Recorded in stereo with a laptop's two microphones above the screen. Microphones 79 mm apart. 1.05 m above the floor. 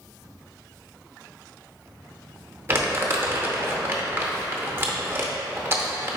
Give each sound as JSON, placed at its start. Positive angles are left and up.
{"t": 2.7, "sound": "crumpling", "side_deg": -30, "distance_m": 0.7}